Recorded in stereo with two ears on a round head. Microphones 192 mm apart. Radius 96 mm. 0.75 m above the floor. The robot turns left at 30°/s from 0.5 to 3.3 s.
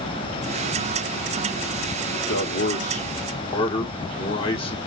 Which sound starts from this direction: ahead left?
A man speaking, at 2.1 s.